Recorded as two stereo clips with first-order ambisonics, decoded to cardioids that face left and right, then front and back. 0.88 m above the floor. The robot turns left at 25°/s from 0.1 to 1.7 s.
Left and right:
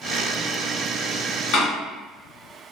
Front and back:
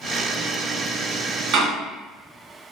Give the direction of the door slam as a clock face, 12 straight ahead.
8 o'clock.